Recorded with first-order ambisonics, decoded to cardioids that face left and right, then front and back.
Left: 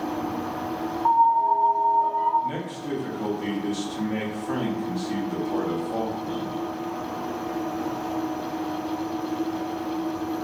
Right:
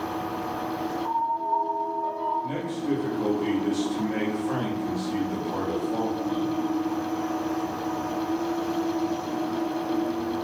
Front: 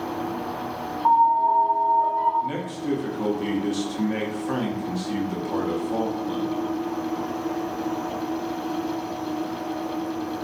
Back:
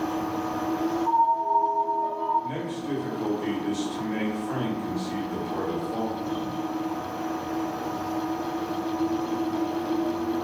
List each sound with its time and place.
1.1 s a piano: 30° left, 0.6 m
2.4 s a man speaking: 5° left, 0.7 m